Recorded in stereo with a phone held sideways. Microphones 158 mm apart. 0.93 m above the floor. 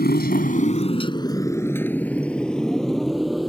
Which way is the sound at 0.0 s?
85° left.